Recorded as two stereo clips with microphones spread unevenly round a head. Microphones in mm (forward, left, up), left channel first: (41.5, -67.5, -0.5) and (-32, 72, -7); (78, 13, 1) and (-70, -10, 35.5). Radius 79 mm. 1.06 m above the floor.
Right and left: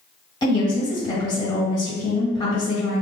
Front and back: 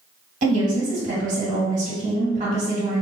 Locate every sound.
0.4 s a woman speaking: 125° right, 1.6 m